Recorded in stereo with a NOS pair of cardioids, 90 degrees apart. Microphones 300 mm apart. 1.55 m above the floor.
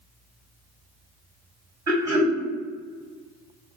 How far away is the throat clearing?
About 1.3 m.